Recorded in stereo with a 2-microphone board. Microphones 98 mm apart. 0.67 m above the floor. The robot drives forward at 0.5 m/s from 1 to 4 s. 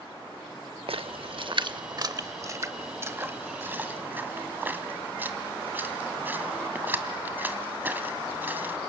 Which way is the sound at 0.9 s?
70° right (ahead or behind).